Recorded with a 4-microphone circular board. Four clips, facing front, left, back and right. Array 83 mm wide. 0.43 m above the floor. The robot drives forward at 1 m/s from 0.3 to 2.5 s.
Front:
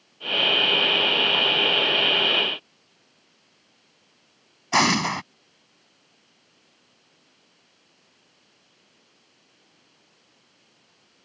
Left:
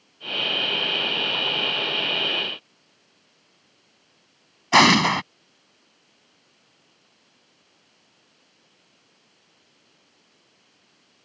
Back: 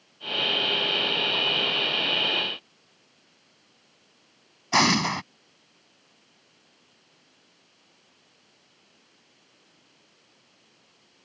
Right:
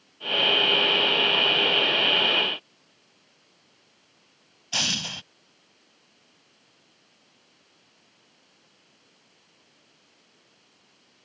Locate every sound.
4.7 s an explosion: 85° left